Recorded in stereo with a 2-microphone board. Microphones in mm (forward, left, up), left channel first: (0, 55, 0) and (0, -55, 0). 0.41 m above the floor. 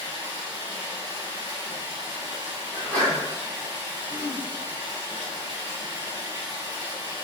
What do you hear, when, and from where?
0.0 s running water: 40° right (ahead or behind), 1.3 m
2.7 s a sneeze: 15° left (ahead or behind), 1.3 m
4.1 s throat clearing: 25° left (ahead or behind), 0.7 m